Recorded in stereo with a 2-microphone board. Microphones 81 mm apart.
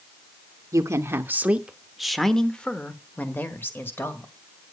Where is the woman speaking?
40° right (ahead or behind), 0.8 m; by 4.3 s 30° left (ahead or behind), 1.8 m.